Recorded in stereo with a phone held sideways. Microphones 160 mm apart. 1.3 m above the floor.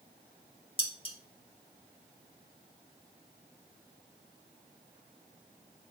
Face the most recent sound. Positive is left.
turn(degrees=35)  # may be behind; listen again after turning